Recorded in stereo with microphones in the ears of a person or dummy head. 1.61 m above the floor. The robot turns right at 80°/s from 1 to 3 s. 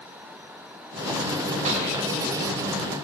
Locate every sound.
1.6 s a gunshot: 40° right (ahead or behind), 1.5 m; by 2.0 s 60° right (ahead or behind), 1.5 m